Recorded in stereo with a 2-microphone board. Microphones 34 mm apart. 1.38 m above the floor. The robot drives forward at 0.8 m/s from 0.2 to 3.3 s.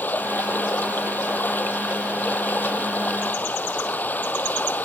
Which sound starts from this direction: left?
Running water, at 0.0 s.